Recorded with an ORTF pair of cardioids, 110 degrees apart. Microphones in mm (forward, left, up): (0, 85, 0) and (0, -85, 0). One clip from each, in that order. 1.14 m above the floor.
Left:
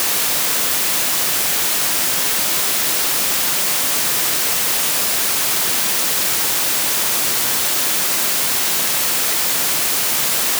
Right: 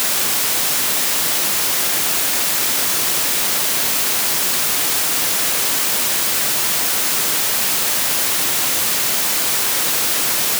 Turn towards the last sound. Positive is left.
No sound to turn to.